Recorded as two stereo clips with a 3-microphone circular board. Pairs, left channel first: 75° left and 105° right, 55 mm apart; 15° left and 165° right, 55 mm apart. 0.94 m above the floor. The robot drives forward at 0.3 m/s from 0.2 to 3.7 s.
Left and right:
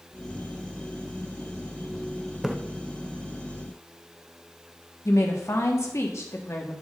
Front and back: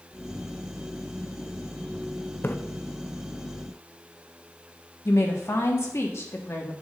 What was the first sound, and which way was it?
A splash, 25° right.